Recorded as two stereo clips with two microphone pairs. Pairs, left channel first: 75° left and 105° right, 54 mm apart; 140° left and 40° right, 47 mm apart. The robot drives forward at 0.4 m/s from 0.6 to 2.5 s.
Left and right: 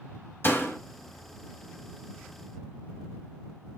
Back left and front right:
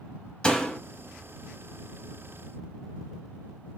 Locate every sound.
0.4 s a door slam: 80° left, 0.9 m; by 0.8 s 90° left, 0.9 m